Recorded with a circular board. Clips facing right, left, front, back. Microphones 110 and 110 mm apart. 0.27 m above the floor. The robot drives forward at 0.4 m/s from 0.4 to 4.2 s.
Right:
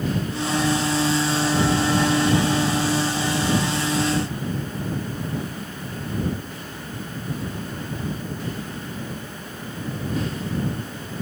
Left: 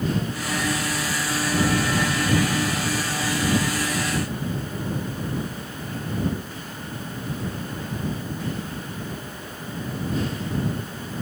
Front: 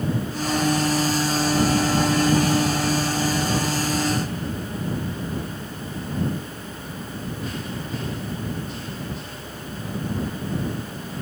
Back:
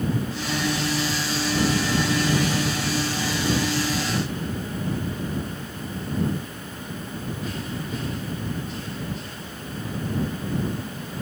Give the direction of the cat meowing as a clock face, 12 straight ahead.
I don't hear a cat meowing.